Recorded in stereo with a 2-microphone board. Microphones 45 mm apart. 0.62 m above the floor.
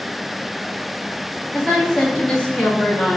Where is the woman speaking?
5° left (ahead or behind), 1.2 m; by 3.2 s 30° left (ahead or behind), 1.2 m.